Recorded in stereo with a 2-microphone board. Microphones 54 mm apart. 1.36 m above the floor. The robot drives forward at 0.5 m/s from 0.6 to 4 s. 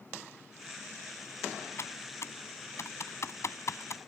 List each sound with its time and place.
1.8 s typing on a keyboard: 55° left (ahead or behind); by 4.0 s 65° left (ahead or behind)